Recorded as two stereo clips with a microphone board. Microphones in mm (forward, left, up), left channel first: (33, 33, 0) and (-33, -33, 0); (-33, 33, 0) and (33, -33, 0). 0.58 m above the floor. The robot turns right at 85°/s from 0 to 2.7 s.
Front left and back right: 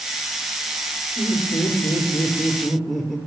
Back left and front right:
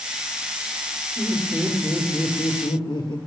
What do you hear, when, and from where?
1.2 s laughter: 5° left, 2.0 m; by 3.2 s 135° left, 2.0 m